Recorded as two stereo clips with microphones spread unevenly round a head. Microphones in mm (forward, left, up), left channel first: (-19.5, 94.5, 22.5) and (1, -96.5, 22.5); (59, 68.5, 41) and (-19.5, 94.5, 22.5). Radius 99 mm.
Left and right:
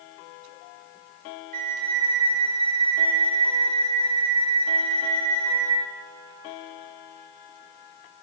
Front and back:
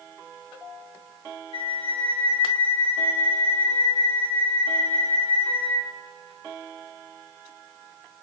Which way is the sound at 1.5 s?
35° right.